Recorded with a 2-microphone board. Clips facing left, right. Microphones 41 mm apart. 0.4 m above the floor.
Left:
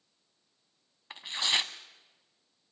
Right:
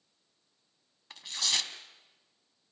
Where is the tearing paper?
30° left (ahead or behind), 1.2 m.